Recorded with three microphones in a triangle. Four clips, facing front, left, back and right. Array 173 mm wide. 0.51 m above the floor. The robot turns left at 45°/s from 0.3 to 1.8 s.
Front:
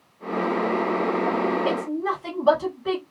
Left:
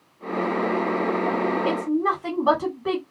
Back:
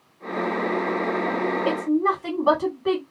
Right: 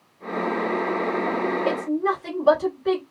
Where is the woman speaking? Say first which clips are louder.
Left 1 dB, back 3 dB; 130° left, 1.8 m; by 3.0 s 120° left, 1.8 m.